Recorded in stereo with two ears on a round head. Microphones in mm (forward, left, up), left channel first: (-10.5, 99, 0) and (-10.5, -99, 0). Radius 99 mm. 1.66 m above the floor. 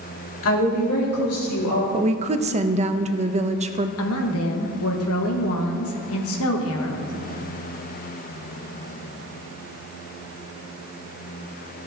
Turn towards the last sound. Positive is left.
turn(degrees=70)  # may be behind; listen again after turning